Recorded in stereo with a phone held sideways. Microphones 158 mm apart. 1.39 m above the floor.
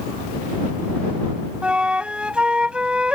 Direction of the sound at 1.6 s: 5° right (ahead or behind).